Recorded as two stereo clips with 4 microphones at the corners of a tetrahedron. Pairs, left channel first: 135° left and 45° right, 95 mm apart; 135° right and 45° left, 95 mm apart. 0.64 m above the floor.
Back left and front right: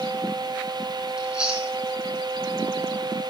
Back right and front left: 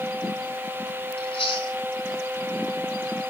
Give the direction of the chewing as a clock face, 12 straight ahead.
4 o'clock.